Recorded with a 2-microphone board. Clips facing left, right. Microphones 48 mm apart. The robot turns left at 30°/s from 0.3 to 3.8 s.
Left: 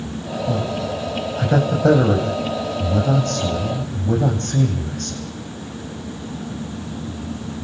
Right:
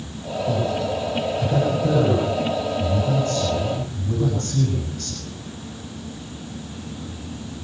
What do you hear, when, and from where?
0.5 s a man speaking: 165° left, 7 m; by 5.2 s 65° left, 7 m